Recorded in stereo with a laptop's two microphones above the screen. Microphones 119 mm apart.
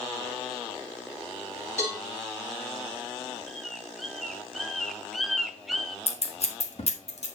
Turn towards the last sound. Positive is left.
turn(degrees=60)  # may be behind; listen again after turning